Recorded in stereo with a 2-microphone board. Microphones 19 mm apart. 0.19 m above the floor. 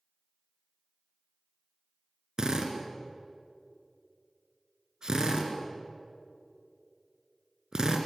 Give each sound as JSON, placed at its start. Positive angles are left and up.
{"t": 2.4, "sound": "a drill", "side_deg": -40, "distance_m": 2.5}